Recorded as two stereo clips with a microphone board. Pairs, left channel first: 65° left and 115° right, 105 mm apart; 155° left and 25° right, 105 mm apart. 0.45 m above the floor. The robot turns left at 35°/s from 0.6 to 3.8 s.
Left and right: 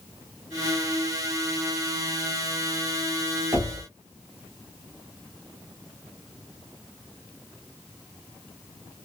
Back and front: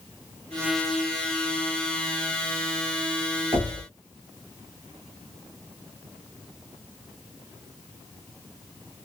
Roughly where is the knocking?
Ahead right.